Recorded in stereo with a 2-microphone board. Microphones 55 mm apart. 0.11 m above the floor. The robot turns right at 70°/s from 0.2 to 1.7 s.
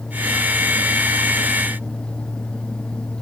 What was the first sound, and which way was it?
Only background noise.